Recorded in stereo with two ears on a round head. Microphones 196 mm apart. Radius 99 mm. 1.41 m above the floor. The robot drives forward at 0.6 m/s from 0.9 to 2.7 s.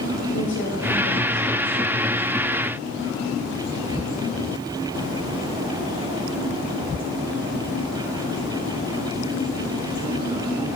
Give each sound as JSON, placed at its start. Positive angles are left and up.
{"t": 0.3, "sound": "a woman speaking", "side_deg": 75, "distance_m": 4.5}